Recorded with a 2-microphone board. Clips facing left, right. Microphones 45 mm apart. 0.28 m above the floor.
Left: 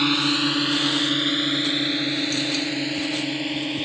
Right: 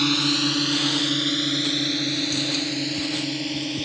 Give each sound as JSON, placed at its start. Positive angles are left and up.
{"t": 0.0, "sound": "a drone", "side_deg": 15}